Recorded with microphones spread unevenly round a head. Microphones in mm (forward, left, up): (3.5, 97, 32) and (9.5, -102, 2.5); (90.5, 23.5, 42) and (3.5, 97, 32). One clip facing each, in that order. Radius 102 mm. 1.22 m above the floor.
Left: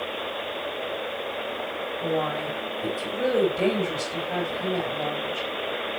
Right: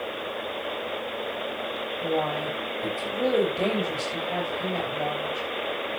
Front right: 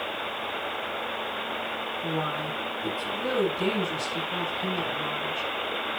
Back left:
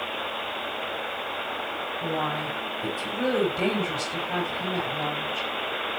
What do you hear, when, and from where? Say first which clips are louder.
2.0 s a woman speaking: even, back left 2 dB; straight behind, 7 m